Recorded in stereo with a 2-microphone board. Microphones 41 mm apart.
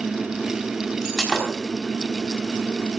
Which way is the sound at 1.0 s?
10° right (ahead or behind).